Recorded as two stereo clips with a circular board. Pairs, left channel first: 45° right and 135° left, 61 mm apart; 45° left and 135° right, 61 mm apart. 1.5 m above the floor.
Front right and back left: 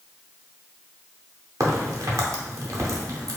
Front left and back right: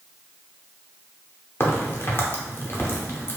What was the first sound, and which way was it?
A crack, 100° left.